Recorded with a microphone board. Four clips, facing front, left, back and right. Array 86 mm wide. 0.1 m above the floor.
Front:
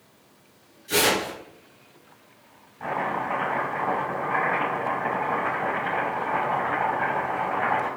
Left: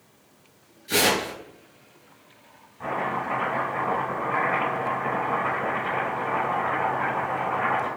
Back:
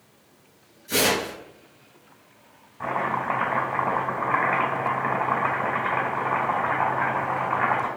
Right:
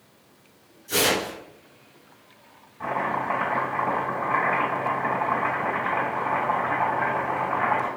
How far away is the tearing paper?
About 1.4 m.